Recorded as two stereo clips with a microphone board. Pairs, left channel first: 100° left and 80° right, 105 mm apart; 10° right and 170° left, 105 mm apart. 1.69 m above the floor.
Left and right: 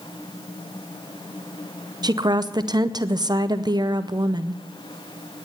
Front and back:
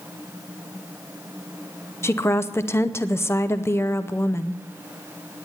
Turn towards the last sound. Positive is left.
turn(degrees=-60)